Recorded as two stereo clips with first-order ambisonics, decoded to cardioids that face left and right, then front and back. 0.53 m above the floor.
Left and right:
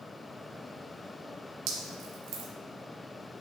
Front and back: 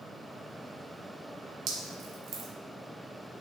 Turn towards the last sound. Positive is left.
turn(degrees=-130)